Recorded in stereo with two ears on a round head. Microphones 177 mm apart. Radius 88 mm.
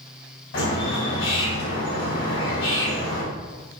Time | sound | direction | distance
0.5 | a bird | 65° left (ahead or behind) | 3 m